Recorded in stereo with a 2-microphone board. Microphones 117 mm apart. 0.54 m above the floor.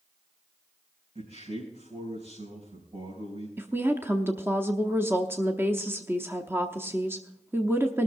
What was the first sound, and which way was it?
A man speaking, 70° right (ahead or behind).